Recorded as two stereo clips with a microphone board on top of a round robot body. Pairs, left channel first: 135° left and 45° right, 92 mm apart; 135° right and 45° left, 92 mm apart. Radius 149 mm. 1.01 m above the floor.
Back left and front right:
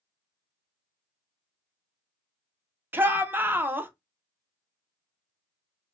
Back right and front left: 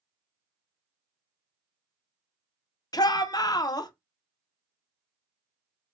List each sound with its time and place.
2.9 s a shout: 105° right, 0.9 m